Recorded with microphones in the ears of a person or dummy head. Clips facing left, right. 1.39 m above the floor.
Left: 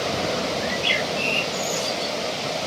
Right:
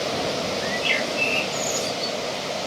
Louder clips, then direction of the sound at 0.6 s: Even; 10° left (ahead or behind).